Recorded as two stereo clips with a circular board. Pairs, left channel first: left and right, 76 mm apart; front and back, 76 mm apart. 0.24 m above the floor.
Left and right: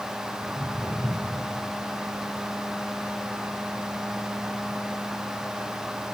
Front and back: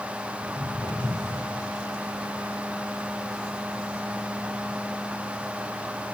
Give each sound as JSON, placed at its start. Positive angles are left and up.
{"t": 0.4, "sound": "footsteps", "azimuth_deg": 10, "distance_m": 2.5}